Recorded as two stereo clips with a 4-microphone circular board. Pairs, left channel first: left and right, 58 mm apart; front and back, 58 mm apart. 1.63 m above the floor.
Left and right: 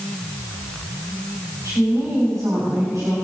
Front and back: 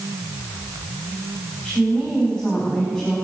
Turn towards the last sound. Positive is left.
turn(degrees=-70)